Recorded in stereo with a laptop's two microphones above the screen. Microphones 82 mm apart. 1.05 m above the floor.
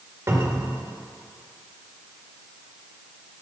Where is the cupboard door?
40° right (ahead or behind), 1.6 m.